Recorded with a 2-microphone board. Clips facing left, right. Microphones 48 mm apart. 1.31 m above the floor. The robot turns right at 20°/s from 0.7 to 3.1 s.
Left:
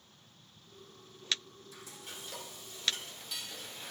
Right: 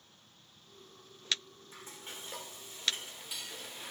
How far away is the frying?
About 2.5 m.